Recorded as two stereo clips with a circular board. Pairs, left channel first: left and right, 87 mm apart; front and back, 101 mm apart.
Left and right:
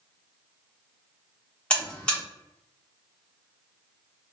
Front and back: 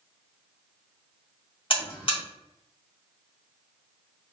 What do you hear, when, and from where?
1.7 s a buzzer: 20° left, 1.4 m